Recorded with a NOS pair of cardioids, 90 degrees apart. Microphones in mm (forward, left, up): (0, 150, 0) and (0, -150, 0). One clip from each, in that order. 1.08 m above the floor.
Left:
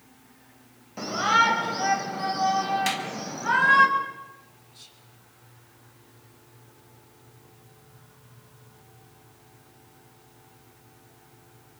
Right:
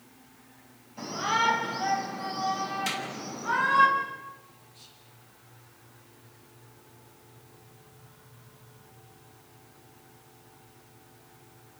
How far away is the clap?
About 6 m.